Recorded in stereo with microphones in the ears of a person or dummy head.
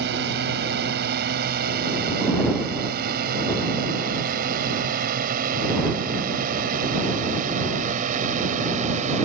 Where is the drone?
55° right (ahead or behind); by 9.2 s 40° right (ahead or behind).